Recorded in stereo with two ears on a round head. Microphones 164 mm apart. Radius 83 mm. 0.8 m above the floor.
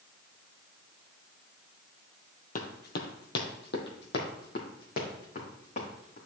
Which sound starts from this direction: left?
Running footsteps, at 2.5 s.